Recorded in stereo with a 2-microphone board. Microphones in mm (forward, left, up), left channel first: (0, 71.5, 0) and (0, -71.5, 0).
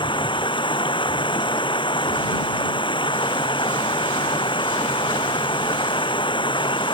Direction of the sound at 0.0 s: 35° left (ahead or behind).